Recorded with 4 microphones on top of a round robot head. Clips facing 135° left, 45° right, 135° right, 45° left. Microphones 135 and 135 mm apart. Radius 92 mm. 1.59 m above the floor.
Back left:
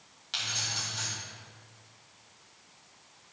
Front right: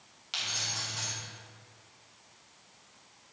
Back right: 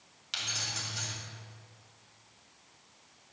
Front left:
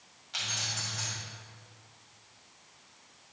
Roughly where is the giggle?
I don't hear a giggle.